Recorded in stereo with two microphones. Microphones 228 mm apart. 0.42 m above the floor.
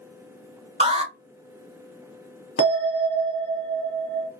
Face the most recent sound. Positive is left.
turn(degrees=75)  # may be behind; listen again after turning